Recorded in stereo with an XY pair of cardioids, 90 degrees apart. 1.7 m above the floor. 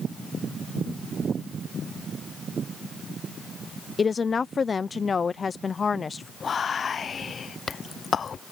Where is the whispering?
50° left.